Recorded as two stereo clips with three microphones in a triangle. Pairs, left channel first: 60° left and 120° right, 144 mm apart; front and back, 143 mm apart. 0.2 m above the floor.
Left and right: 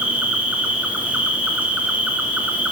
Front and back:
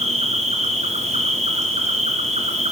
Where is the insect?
160° left, 2.5 m.